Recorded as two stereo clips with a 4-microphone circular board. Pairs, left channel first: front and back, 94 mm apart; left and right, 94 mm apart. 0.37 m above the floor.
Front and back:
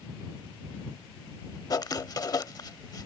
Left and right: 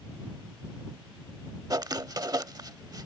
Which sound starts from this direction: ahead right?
Writing, at 1.7 s.